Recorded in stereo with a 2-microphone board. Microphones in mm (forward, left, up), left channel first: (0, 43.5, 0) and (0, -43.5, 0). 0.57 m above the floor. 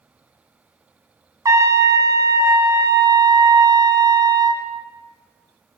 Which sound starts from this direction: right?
A trumpet, at 1.4 s.